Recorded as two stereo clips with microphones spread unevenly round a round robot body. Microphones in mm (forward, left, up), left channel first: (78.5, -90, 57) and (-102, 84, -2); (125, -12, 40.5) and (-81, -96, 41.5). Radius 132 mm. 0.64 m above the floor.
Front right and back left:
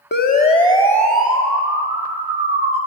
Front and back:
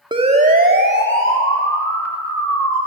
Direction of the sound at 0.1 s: 95° right.